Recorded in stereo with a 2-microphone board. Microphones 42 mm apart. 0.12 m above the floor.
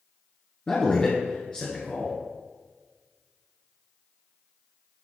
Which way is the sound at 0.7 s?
25° left (ahead or behind).